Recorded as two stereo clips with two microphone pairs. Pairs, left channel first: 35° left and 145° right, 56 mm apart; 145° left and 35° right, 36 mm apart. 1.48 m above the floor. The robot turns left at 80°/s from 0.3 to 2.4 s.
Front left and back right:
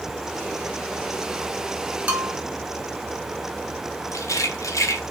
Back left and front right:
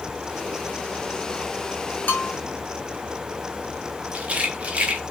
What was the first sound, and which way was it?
A bell, 155° left.